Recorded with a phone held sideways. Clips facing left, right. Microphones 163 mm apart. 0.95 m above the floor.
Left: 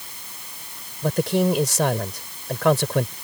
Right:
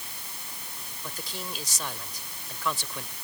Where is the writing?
I don't hear writing.